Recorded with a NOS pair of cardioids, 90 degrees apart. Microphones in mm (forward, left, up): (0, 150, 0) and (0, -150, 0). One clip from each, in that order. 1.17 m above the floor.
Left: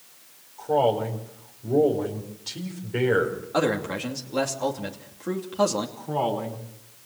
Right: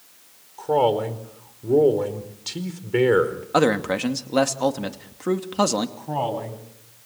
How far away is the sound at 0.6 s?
About 4.5 m.